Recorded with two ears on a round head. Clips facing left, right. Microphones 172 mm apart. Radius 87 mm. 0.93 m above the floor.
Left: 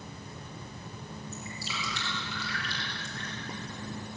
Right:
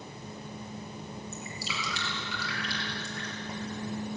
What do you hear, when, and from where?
1.3 s dripping: 65° right (ahead or behind), 6 m